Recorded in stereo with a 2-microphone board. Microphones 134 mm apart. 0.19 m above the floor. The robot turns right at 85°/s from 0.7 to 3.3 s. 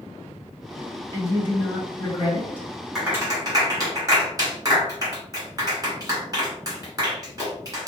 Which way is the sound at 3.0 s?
Centre (ahead or behind).